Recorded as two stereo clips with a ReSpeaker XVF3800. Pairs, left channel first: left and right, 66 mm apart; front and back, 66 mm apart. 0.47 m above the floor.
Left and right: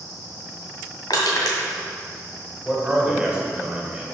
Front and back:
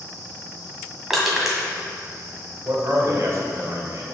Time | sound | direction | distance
1.1 | crushing | 95° left | 1.8 m
2.6 | a man speaking | 165° right | 2 m